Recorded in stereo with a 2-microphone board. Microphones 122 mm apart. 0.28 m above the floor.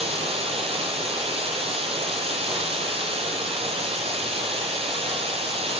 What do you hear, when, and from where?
0.0 s running water: 55° right (ahead or behind), 1.3 m